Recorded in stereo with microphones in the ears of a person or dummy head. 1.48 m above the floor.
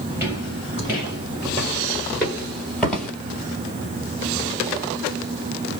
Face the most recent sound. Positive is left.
turn(degrees=5)  # may be behind; listen again after turning